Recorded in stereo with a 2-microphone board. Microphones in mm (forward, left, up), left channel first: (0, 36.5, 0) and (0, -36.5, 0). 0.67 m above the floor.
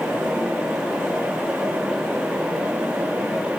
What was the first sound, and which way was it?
Only background noise.